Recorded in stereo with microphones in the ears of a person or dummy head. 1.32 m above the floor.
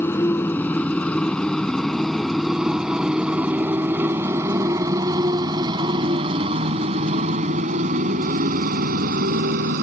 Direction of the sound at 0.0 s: 15° left (ahead or behind).